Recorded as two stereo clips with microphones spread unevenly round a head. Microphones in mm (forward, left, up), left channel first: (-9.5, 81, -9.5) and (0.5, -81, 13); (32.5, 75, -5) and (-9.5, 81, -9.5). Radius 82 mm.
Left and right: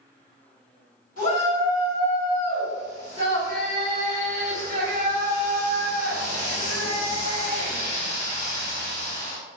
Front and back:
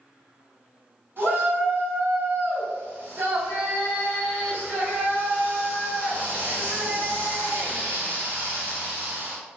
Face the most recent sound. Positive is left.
turn(degrees=135)